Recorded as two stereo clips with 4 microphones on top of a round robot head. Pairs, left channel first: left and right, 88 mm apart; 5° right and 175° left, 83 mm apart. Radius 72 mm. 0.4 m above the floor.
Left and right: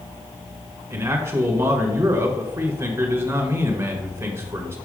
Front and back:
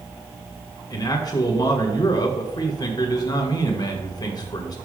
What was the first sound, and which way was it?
A man speaking, 35° right.